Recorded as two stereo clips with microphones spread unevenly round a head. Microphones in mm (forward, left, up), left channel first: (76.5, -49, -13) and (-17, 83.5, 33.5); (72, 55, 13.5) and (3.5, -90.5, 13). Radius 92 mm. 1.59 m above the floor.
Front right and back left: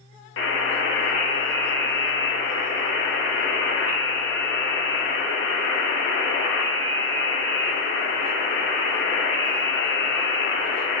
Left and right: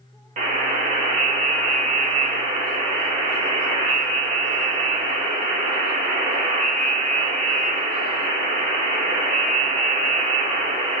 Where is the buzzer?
75° right, 2 m.